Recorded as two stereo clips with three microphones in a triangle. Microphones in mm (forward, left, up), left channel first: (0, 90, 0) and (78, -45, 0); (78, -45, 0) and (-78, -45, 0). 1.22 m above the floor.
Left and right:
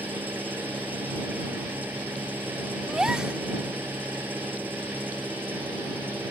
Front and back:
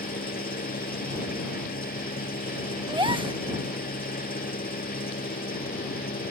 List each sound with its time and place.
0.0 s an engine running: 20° left
2.9 s a gasp: 145° right